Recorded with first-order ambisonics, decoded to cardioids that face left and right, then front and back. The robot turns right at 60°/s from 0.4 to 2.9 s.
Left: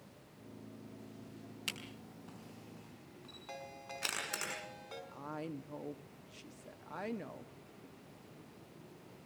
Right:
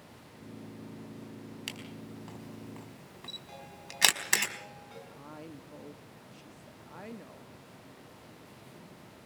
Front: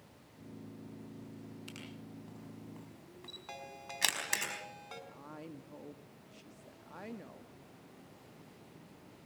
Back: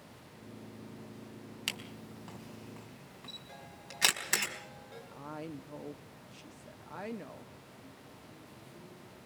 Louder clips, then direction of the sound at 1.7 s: Even, back 14 dB; 170° right.